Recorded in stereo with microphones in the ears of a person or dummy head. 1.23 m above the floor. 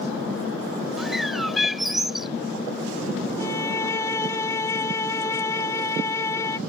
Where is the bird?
5° left (ahead or behind).